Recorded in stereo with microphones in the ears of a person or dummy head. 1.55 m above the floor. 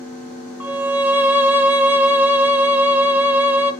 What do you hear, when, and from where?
0.6 s a violin: 10° right (ahead or behind), 0.7 m